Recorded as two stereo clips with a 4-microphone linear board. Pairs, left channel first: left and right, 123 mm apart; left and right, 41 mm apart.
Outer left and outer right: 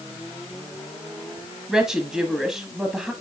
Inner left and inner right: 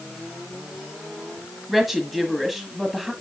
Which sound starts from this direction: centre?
A woman speaking, at 1.7 s.